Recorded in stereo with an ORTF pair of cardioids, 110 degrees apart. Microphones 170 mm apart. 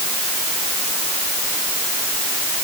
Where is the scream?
I don't hear a scream.